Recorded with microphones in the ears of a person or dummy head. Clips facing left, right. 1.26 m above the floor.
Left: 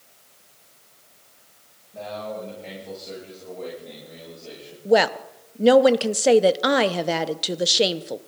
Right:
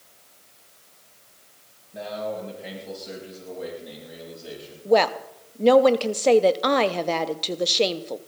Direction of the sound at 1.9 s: 20° right (ahead or behind).